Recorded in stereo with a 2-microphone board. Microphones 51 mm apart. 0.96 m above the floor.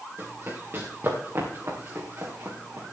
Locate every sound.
0.2 s running footsteps: 45° right (ahead or behind), 5 m; by 2.9 s 55° right (ahead or behind), 3.5 m